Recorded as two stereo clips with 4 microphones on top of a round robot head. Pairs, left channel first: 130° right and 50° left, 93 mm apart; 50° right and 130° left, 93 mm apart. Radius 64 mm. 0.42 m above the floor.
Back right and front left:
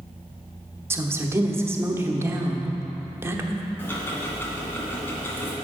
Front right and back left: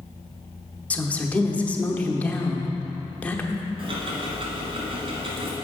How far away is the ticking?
About 1.8 m.